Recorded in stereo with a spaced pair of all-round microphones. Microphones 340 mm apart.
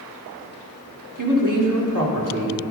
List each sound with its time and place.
1.2 s a woman speaking: 60° right (ahead or behind), 3 m